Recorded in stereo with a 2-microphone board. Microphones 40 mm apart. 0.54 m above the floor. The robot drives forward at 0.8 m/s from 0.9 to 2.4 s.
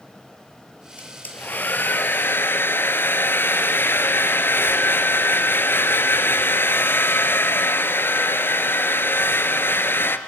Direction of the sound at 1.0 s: 40° left (ahead or behind).